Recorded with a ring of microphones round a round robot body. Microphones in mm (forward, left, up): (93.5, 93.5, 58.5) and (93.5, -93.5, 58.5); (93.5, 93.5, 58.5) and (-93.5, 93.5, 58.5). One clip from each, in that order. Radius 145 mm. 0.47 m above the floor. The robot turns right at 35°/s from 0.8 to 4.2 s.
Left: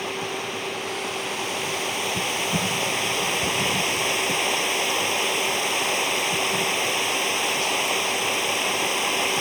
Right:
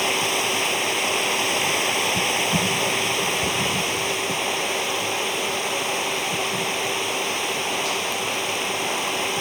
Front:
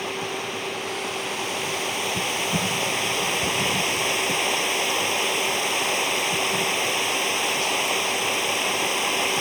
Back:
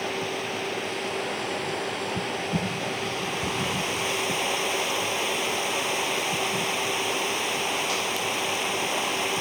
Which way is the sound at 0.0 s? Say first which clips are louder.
Right 7 dB, front 1 dB; 80° right.